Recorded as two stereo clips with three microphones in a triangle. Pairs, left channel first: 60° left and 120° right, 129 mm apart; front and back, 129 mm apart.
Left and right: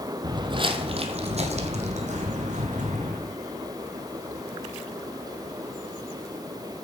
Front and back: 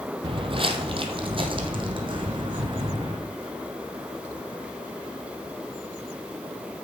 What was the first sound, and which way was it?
Footsteps, 165° right.